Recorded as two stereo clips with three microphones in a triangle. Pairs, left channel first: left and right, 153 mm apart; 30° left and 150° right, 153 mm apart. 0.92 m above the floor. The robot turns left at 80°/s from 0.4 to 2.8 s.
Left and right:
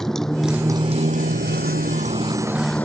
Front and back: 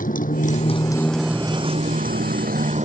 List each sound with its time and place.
0.0 s a motorcycle: 5° left; by 2.8 s 170° left